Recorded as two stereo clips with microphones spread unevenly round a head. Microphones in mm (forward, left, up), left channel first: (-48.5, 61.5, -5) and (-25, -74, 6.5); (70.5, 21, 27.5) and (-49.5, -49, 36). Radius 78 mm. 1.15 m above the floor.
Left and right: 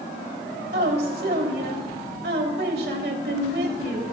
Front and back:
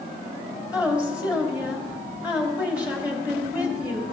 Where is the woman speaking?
70° right, 3 m.